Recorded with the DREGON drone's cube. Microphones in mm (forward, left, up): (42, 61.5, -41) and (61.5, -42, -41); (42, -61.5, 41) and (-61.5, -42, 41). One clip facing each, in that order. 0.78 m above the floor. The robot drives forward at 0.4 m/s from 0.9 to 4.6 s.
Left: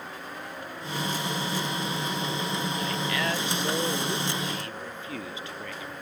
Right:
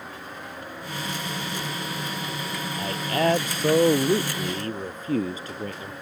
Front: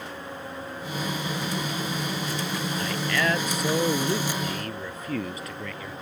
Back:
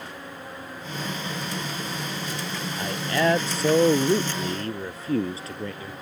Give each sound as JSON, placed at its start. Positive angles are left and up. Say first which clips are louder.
{"t": 2.8, "sound": "a man speaking", "louder": "right 5 dB, back 4 dB", "azimuth_deg": -130}